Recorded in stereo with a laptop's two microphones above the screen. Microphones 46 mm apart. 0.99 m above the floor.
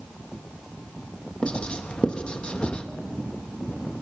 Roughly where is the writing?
Left.